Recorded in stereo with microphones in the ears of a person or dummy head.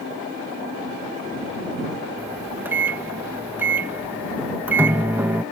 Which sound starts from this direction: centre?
A microwave, at 2.2 s.